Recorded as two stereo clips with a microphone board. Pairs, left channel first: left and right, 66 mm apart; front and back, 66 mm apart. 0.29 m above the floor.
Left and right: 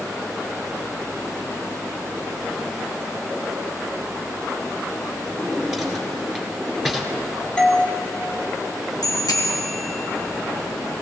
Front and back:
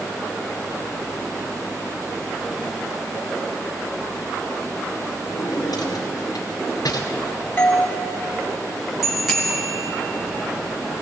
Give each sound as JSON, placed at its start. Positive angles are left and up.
{"t": 5.3, "sound": "a drawer", "azimuth_deg": 0, "distance_m": 2.0}
{"t": 7.6, "sound": "a doorbell", "azimuth_deg": 25, "distance_m": 1.5}
{"t": 9.0, "sound": "a bicycle bell", "azimuth_deg": 95, "distance_m": 2.5}